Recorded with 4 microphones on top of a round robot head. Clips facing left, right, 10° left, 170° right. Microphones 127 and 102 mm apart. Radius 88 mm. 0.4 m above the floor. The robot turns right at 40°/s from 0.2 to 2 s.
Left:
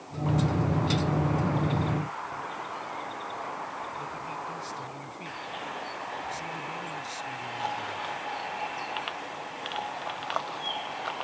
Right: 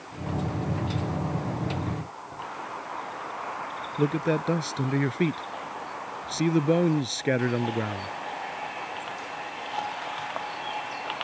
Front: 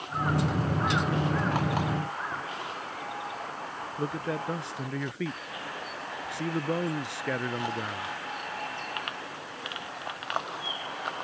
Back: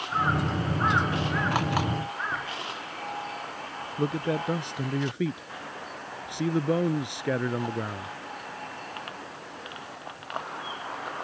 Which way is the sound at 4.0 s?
95° right.